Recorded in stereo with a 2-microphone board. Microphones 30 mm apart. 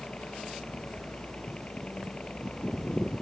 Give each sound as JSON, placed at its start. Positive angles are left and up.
{"t": 0.0, "sound": "a helicopter", "side_deg": 35}